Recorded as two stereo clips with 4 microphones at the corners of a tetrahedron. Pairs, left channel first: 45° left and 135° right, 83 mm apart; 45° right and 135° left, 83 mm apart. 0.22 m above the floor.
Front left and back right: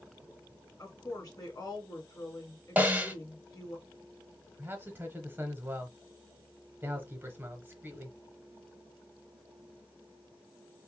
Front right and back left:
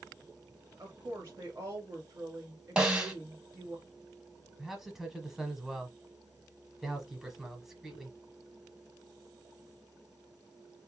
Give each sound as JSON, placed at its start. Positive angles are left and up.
{"t": 0.8, "sound": "a woman speaking", "azimuth_deg": 80, "distance_m": 2.5}
{"t": 2.8, "sound": "a snare drum", "azimuth_deg": -165, "distance_m": 1.1}
{"t": 4.6, "sound": "a man speaking", "azimuth_deg": -145, "distance_m": 1.0}